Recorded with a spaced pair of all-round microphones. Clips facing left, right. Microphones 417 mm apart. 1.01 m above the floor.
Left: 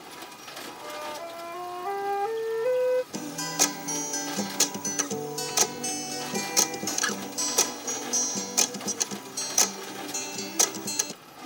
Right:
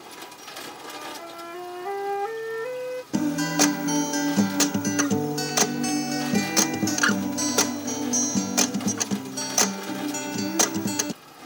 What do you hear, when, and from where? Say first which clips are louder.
0.8 s a flute: left 3 dB; 30° right (ahead or behind)
3.1 s a guitar: right 11 dB; 75° right (ahead or behind)